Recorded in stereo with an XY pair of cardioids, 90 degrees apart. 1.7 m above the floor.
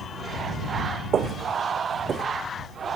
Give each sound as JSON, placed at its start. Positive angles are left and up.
{"t": 1.1, "sound": "footsteps", "azimuth_deg": -60}